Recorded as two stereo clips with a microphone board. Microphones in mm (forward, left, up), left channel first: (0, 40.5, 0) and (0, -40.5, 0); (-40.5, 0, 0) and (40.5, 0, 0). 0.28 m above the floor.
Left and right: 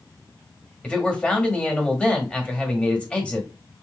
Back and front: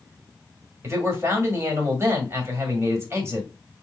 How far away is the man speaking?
About 1.5 m.